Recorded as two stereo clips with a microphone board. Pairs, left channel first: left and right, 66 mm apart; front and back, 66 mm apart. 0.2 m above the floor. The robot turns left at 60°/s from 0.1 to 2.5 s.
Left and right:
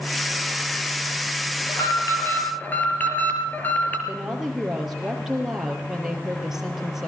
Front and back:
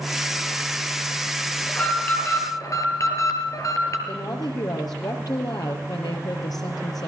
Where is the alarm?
80° left, 4 m; by 4.0 s 30° left, 4 m.